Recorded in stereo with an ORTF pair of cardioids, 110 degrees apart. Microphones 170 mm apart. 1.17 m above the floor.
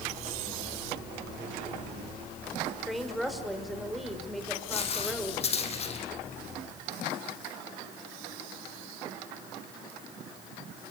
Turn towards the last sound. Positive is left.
turn(degrees=40)